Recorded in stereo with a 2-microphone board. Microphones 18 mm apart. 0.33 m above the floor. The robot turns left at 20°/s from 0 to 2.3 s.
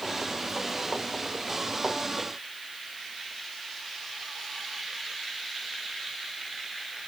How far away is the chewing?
No chewing in this recording.